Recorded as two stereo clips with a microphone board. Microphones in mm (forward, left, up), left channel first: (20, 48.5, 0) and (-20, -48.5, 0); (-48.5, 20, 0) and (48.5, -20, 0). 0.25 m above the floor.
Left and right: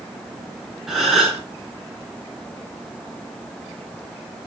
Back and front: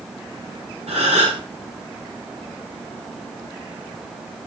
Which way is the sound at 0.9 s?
25° right.